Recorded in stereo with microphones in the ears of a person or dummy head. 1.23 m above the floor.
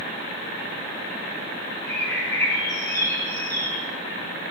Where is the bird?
15° left (ahead or behind), 2.5 m.